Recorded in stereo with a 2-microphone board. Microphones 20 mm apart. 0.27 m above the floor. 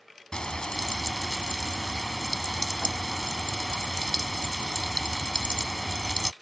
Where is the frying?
45° left (ahead or behind).